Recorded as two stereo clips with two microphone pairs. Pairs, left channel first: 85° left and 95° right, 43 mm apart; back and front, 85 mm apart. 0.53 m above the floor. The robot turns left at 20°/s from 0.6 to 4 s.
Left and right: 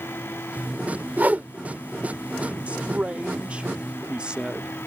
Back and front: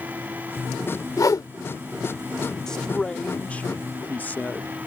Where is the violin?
I don't hear a violin.